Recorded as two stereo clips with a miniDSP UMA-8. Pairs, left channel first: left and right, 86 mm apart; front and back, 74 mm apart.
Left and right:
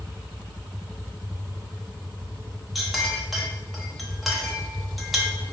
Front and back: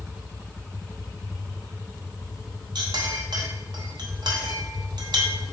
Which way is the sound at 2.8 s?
Straight behind.